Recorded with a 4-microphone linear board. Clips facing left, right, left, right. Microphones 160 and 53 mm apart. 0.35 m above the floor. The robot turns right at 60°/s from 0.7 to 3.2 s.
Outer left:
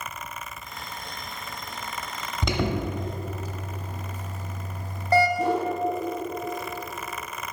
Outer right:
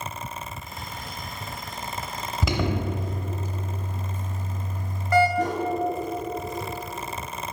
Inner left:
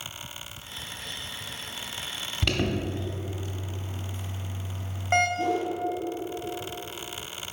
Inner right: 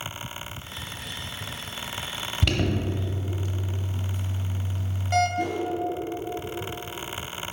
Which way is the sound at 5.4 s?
70° right (ahead or behind).